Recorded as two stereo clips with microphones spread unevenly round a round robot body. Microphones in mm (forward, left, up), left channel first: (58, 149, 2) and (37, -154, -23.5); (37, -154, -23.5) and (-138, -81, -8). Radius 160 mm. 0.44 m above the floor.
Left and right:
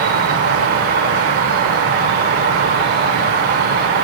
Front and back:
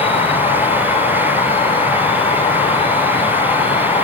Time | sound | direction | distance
0.0 | an insect | 60° right | 1.2 m